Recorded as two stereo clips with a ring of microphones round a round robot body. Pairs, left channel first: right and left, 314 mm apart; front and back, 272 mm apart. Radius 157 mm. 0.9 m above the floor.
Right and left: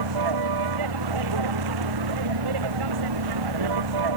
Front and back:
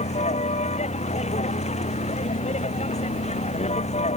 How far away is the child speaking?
No child speaking in this recording.